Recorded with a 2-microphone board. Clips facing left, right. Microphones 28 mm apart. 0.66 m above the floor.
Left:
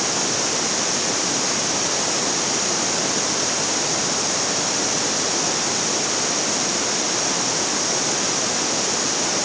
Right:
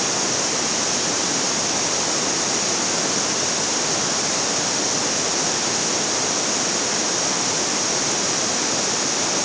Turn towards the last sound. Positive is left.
No sound to turn to.